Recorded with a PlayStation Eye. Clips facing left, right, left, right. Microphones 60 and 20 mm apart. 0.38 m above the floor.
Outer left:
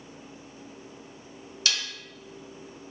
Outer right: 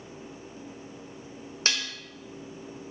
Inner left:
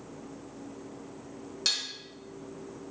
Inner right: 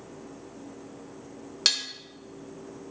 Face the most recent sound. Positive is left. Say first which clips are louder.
# outer right 1 dB, inner right 5 dB
turn(degrees=-35)  # may be behind; listen again after turning